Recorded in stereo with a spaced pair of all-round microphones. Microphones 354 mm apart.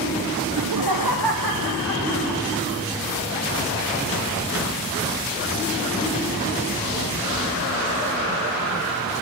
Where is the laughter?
75° right (ahead or behind), 0.7 m.